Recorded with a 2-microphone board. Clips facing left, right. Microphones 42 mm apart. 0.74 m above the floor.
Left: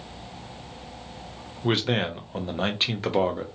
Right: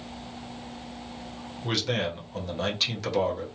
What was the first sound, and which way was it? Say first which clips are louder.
A man speaking: left 4 dB; 30° left (ahead or behind).